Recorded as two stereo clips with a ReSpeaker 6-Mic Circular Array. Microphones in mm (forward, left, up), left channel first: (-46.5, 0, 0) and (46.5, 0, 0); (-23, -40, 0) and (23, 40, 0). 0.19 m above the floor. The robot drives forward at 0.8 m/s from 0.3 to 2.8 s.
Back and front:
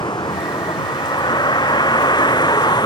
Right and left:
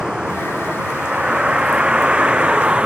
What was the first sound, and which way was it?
A vehicle, 145° left.